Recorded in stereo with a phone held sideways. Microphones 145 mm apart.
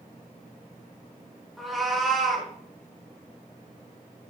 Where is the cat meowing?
Centre (ahead or behind), 2 m.